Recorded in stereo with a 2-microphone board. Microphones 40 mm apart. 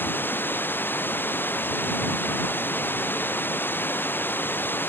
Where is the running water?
60° left (ahead or behind).